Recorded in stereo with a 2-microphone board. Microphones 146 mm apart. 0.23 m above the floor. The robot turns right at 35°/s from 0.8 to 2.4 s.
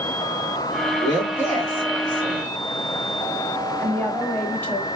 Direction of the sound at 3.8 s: 15° left (ahead or behind).